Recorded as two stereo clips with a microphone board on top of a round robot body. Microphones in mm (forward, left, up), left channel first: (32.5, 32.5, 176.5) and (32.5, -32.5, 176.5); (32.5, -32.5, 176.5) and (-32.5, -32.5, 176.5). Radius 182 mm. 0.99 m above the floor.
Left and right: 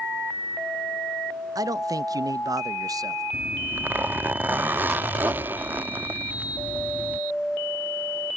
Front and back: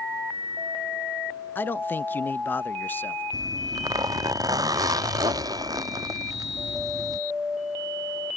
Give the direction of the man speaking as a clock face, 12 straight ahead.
2 o'clock.